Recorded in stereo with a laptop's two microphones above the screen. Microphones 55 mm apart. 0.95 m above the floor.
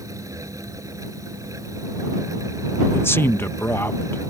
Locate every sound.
0.0 s a fan: 75° right (ahead or behind)
2.9 s a man speaking: 45° left (ahead or behind)